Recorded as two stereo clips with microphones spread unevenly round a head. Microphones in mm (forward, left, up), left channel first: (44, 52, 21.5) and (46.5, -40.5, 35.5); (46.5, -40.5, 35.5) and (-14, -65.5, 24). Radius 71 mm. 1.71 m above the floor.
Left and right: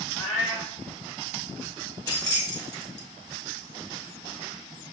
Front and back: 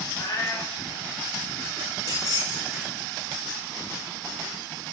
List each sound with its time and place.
0.1 s a cat meowing: 50° left, 1.4 m
2.1 s keys jangling: 40° left, 1.5 m